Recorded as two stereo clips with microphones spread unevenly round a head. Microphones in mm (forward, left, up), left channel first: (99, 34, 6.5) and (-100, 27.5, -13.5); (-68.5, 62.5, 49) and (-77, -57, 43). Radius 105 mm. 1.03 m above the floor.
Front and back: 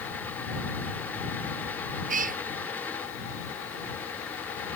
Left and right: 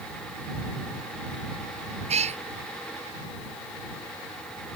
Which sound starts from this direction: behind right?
A cat meowing, at 2.1 s.